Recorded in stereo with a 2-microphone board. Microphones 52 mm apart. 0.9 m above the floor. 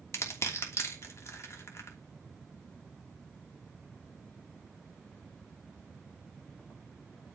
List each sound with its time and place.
0.1 s crushing: 60° left (ahead or behind), 2.5 m